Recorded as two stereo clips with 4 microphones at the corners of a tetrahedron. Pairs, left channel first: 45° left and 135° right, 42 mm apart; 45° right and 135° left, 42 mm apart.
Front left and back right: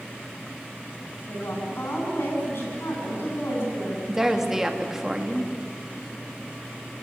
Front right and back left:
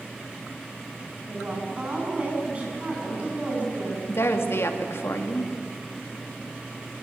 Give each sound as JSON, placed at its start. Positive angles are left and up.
{"t": 1.3, "sound": "a woman speaking", "azimuth_deg": 75, "distance_m": 8.0}
{"t": 4.1, "sound": "a woman speaking", "azimuth_deg": -55, "distance_m": 2.0}